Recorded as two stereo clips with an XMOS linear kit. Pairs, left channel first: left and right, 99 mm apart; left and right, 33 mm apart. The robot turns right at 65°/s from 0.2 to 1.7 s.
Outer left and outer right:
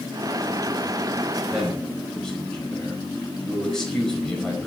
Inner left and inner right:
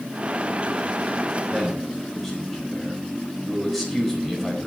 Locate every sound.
1.5 s a man speaking: 5° right (ahead or behind), 5 m; by 4.7 s 5° left (ahead or behind), 5 m